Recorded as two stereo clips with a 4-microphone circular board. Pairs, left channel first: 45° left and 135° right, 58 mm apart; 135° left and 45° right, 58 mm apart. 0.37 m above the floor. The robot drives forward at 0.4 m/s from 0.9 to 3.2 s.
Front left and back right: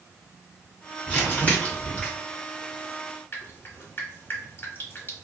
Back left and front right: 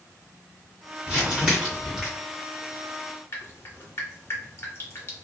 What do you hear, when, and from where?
1.1 s crumpling: 15° left, 1.6 m; by 2.1 s 30° left, 1.4 m
3.3 s dripping: 100° left, 0.9 m